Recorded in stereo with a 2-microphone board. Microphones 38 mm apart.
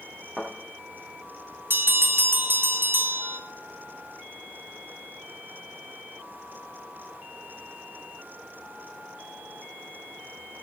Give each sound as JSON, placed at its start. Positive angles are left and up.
{"t": 0.4, "sound": "a thud", "side_deg": -10, "distance_m": 4.5}
{"t": 1.7, "sound": "a bell", "side_deg": -65, "distance_m": 1.2}